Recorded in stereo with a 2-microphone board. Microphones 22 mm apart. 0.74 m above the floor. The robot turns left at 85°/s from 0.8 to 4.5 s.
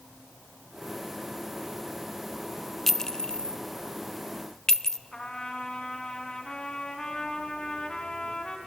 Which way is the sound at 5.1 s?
45° left (ahead or behind).